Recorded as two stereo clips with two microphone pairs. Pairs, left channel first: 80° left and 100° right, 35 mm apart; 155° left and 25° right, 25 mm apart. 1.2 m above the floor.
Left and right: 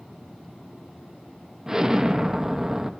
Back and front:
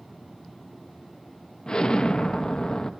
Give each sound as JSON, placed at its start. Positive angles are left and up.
{"t": 1.7, "sound": "an explosion", "azimuth_deg": -170, "distance_m": 0.6}